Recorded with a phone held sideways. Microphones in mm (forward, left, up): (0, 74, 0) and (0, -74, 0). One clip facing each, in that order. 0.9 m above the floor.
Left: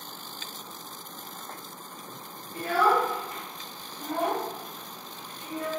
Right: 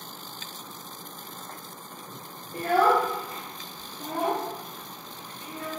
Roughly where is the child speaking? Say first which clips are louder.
Right 2 dB; right.